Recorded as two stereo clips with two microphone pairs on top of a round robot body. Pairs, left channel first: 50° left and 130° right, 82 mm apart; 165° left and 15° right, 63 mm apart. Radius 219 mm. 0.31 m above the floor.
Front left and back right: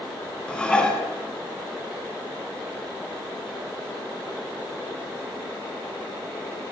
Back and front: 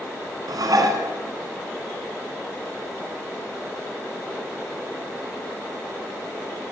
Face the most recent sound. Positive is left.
turn(degrees=-30)